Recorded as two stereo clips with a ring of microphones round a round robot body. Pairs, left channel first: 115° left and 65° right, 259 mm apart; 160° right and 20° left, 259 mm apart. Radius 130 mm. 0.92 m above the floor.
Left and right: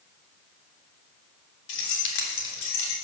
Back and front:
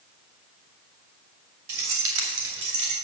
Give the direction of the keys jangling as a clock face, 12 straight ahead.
10 o'clock.